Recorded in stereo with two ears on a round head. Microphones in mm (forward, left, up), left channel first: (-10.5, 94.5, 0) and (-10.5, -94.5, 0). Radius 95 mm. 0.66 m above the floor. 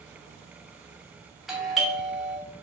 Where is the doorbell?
Centre (ahead or behind), 1.1 m.